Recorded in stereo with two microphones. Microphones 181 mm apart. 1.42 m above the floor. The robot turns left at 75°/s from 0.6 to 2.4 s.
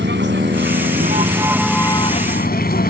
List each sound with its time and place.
0.0 s a vehicle: 100° right; by 2.9 s 125° left